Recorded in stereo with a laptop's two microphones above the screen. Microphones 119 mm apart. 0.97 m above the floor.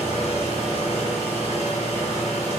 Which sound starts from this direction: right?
A machine running, at 0.0 s.